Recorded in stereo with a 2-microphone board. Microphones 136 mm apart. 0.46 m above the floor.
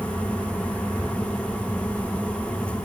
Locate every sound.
Only background noise.